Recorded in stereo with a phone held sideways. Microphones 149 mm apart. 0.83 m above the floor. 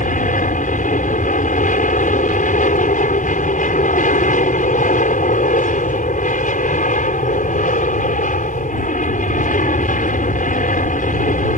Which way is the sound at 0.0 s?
60° left (ahead or behind).